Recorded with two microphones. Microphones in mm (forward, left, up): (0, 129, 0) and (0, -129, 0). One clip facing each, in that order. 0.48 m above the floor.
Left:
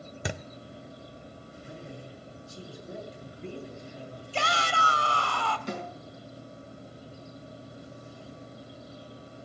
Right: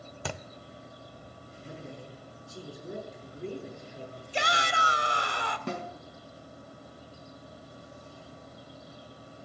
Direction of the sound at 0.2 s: 15° left (ahead or behind).